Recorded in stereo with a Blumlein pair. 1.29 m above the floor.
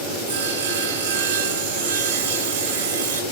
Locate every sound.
0.3 s sawing: 60° right, 2.5 m